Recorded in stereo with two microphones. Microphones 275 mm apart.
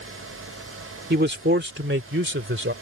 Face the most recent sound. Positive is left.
turn(degrees=-45)  # may be behind; listen again after turning